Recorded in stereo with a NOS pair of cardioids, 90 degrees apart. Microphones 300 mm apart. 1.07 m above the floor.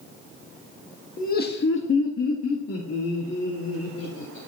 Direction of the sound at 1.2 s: 30° left.